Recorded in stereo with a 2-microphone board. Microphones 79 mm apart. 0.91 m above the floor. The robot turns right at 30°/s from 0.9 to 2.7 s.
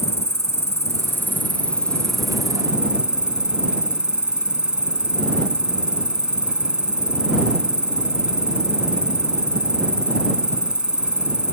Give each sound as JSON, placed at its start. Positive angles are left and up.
{"t": 0.0, "sound": "an insect", "azimuth_deg": 140}